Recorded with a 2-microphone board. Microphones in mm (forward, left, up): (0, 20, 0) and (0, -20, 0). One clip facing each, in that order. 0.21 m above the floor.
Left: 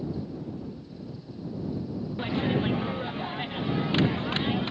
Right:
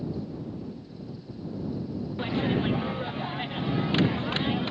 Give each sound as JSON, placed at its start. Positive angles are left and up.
{"t": 2.2, "sound": "a clap", "side_deg": 0}